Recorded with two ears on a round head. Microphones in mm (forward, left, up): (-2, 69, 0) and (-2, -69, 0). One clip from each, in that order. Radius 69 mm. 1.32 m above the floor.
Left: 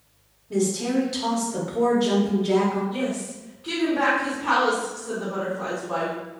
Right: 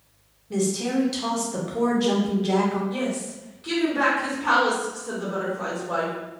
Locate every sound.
0.5 s a woman speaking: 15° right (ahead or behind), 0.9 m
2.9 s a woman speaking: 75° right (ahead or behind), 1.5 m